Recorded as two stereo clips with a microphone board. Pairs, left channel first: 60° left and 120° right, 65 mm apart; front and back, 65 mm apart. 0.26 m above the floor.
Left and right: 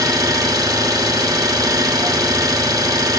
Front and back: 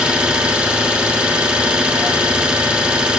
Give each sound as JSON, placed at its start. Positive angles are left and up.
{"t": 0.0, "sound": "an engine running", "azimuth_deg": -105, "distance_m": 1.0}